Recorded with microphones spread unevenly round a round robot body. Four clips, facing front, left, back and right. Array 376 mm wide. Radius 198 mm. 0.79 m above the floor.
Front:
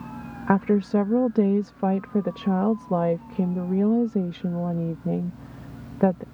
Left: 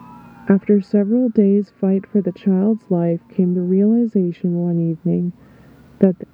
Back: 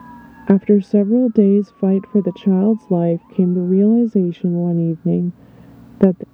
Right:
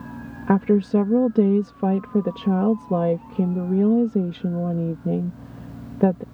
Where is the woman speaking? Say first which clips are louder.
Left 4 dB, back 8 dB; 160° left.